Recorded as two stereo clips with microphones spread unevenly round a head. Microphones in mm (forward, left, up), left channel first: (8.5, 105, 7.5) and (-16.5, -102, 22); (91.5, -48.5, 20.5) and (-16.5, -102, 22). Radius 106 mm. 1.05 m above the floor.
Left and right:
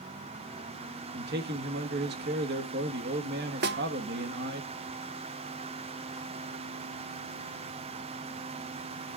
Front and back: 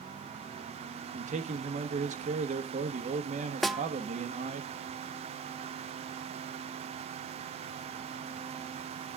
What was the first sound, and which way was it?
A man speaking, 140° right.